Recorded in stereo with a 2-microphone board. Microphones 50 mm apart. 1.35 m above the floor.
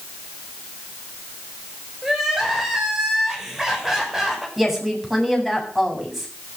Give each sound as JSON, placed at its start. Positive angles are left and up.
{"t": 2.0, "sound": "crying", "side_deg": -10, "distance_m": 6.5}
{"t": 4.6, "sound": "a woman speaking", "side_deg": -5, "distance_m": 7.5}